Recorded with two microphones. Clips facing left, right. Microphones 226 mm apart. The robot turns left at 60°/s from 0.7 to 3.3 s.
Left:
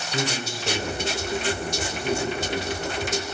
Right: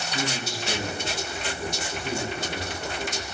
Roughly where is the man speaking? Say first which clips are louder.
Left 3 dB; behind left.